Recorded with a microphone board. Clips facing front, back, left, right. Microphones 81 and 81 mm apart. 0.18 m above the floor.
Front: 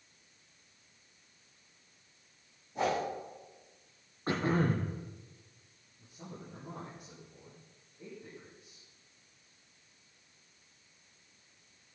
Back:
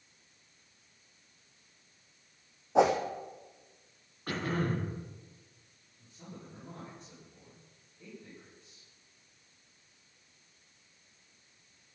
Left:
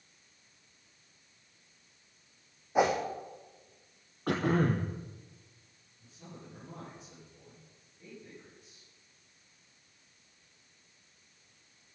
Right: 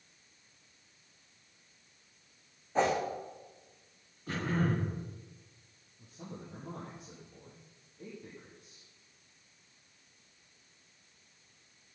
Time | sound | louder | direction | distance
2.8 | a whoosh | back 7 dB, left 2 dB | 170° left | 3 m
4.3 | throat clearing | front 3 dB, left 4 dB | 65° left | 2.5 m
6.0 | a man speaking | front 1 dB, right 4 dB | 70° right | 7 m